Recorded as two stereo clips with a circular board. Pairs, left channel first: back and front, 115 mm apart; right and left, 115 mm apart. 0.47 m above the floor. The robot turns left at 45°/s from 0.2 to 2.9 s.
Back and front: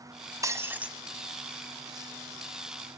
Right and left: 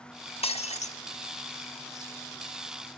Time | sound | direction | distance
0.4 | breaking glass | 60° right | 1.1 m